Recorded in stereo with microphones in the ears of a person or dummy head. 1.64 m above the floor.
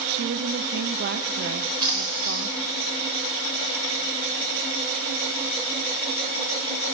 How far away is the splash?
About 3.5 m.